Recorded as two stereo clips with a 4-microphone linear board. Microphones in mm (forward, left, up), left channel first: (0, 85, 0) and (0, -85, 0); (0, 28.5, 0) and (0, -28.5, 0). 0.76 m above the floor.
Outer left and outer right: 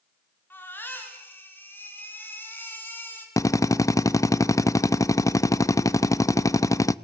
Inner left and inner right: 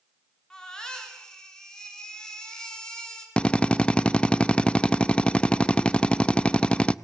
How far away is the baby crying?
About 4 m.